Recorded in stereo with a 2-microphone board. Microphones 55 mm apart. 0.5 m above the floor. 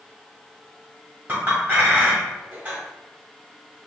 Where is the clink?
30° right (ahead or behind), 1.6 m.